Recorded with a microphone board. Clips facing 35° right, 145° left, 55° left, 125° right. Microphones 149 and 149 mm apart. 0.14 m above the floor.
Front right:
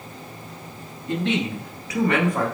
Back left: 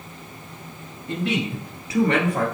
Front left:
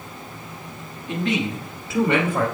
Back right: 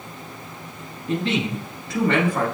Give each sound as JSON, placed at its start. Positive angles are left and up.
{"t": 1.1, "sound": "a man speaking", "azimuth_deg": -130, "distance_m": 1.5}